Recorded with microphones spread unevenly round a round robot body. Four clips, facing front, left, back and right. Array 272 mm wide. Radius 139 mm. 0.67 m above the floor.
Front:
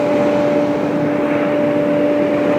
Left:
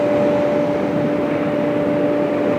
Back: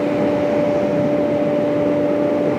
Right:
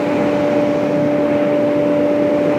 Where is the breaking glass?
No breaking glass in this recording.